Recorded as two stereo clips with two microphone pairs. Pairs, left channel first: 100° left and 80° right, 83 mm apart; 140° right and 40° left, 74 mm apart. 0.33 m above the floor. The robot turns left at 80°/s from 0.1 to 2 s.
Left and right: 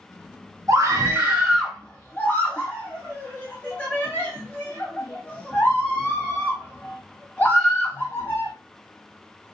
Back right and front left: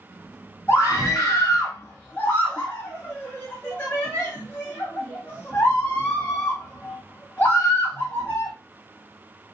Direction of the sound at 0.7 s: 90° right.